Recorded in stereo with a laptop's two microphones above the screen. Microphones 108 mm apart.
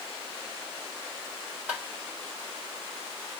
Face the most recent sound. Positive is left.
turn(degrees=-15)  # may be behind; listen again after turning